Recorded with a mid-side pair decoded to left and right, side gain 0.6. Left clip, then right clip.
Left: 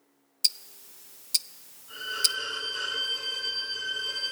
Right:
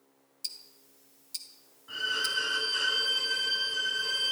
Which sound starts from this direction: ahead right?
A violin, at 1.9 s.